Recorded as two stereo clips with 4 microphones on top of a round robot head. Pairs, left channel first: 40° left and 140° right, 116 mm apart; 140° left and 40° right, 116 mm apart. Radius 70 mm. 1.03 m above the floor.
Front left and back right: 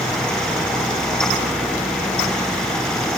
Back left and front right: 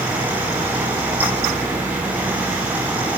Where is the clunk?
No clunk in this recording.